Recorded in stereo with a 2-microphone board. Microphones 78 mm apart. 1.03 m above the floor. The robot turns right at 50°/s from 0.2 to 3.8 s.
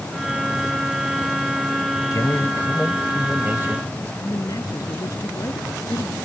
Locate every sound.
2.1 s a man speaking: 130° left; by 4.1 s 145° right
4.2 s a man speaking: 50° left (ahead or behind)